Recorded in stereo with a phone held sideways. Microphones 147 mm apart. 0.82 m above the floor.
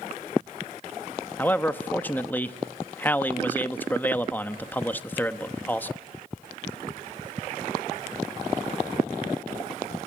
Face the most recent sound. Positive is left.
turn(degrees=10)  # may be behind; listen again after turning